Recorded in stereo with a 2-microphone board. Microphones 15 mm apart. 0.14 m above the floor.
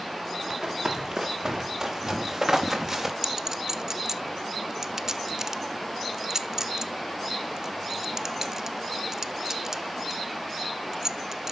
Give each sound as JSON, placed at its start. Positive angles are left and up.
{"t": 0.5, "sound": "running footsteps", "side_deg": -30, "distance_m": 4.0}
{"t": 3.2, "sound": "a clink", "side_deg": -40, "distance_m": 0.8}